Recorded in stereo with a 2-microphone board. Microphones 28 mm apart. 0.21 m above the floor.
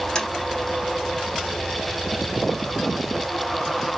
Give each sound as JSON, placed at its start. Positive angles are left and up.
{"t": 0.1, "sound": "tapping", "side_deg": 20, "distance_m": 2.0}